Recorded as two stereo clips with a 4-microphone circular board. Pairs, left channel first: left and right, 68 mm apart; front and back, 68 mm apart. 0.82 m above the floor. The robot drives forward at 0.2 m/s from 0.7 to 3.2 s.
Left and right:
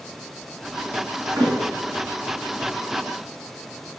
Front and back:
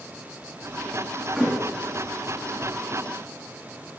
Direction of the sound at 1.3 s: 100° right.